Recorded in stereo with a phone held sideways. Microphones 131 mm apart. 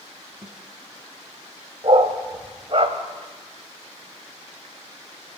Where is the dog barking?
50° right (ahead or behind), 2 m.